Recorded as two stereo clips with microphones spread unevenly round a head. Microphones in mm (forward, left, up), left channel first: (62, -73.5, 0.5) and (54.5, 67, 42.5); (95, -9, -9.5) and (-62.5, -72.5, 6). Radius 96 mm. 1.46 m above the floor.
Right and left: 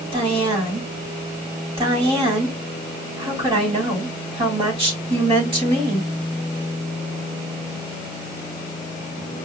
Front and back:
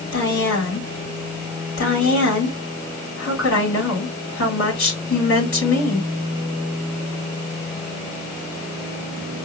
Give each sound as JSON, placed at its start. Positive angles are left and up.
{"t": 0.1, "sound": "a woman speaking", "azimuth_deg": 45, "distance_m": 4.0}